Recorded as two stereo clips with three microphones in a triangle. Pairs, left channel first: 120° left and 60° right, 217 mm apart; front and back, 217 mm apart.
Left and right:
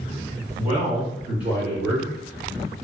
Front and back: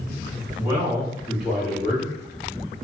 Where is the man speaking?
100° right, 1.8 m; by 2.1 s 90° right, 2.5 m.